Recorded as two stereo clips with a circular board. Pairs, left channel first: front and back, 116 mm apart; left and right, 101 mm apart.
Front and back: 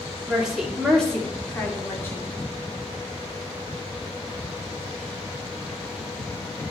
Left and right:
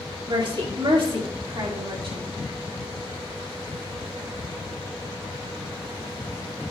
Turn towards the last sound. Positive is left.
turn(degrees=-65)